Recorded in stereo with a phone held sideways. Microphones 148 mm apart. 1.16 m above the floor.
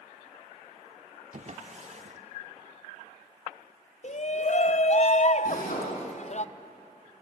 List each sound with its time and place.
1.3 s a drawer: 50° right (ahead or behind), 1.0 m
4.0 s a shout: 50° left (ahead or behind), 0.8 m
5.5 s a drill: 65° left (ahead or behind), 8.5 m